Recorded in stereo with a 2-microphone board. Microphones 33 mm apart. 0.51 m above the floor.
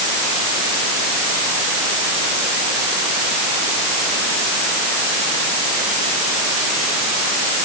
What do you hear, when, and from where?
Only background noise.